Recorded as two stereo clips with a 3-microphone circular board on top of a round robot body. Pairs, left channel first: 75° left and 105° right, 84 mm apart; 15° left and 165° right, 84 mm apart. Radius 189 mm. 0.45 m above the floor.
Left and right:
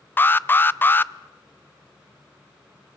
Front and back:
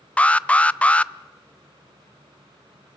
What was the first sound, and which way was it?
An alarm, 65° left.